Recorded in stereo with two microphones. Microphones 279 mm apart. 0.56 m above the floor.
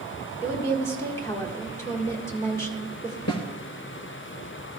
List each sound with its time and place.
0.4 s a woman speaking: 10° left (ahead or behind), 1.5 m
3.3 s a snare drum: 65° left (ahead or behind), 1.6 m